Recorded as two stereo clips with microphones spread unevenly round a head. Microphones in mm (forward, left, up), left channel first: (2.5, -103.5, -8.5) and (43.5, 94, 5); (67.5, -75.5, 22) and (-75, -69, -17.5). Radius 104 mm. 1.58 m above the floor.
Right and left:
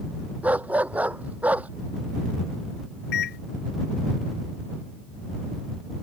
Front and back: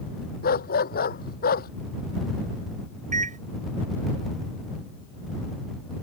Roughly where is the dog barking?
Ahead.